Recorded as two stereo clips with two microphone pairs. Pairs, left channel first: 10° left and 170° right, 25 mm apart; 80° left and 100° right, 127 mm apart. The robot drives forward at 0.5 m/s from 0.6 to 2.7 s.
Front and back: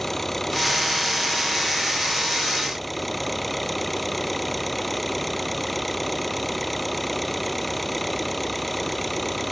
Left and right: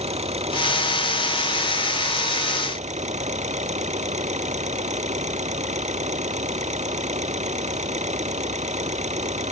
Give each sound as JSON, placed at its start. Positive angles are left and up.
{"t": 0.0, "sound": "an engine running", "azimuth_deg": -70}